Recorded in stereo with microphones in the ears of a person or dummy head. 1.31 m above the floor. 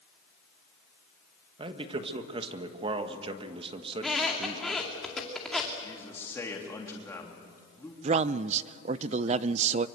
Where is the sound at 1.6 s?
35° right (ahead or behind), 1.3 m.